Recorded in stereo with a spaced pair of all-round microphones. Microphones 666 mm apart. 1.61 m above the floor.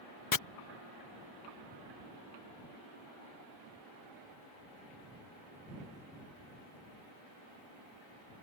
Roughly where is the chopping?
Left.